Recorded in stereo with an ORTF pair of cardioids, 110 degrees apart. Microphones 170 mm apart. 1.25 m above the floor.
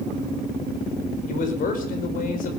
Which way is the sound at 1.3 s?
55° left.